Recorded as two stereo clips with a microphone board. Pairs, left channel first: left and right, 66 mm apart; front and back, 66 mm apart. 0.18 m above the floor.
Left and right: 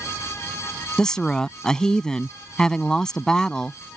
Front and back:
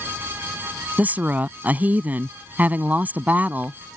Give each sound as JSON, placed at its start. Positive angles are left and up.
{"t": 1.0, "sound": "a woman speaking", "azimuth_deg": 155}